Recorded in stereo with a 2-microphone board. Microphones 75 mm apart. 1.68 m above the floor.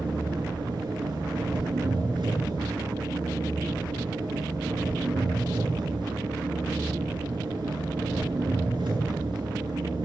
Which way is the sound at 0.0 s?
80° right.